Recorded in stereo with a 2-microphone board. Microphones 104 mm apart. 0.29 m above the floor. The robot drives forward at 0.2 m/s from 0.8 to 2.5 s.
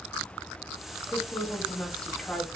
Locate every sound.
1.1 s a woman speaking: 10° left (ahead or behind), 1.1 m